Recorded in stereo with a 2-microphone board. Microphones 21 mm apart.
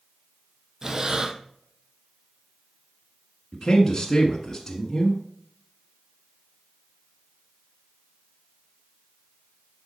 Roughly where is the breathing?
Right.